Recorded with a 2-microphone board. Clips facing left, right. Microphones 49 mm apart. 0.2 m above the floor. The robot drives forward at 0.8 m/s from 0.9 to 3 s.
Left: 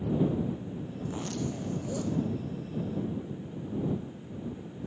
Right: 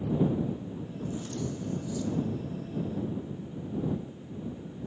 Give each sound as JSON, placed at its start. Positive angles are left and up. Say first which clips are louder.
{"t": 1.0, "sound": "a zipper", "louder": "left 1 dB", "side_deg": 70, "distance_m": 0.8}